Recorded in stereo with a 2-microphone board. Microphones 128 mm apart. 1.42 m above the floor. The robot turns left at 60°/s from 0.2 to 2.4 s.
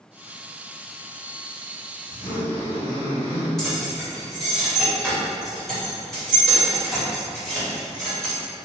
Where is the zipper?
55° left (ahead or behind), 1.3 m; by 3.5 s 45° left (ahead or behind), 1.3 m.